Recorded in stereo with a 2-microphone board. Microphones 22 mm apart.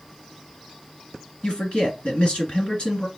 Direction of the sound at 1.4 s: 50° left (ahead or behind).